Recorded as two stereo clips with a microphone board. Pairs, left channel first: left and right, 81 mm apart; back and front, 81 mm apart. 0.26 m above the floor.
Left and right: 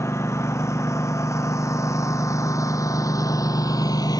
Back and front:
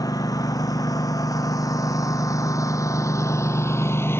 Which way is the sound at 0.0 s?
145° left.